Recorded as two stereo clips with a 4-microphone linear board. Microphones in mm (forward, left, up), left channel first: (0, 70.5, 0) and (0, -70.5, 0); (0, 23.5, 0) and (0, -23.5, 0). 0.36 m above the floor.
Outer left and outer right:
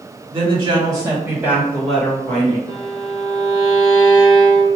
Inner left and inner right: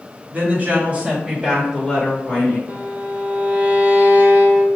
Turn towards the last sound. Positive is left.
turn(degrees=-30)  # may be behind; listen again after turning